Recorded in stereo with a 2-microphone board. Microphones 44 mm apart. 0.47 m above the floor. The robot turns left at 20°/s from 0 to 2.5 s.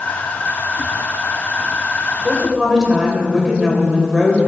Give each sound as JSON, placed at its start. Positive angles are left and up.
{"t": 2.2, "sound": "a woman speaking", "side_deg": -10, "distance_m": 2.0}